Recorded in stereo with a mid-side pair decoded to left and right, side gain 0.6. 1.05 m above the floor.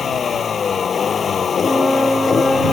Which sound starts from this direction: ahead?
A flute, at 1.6 s.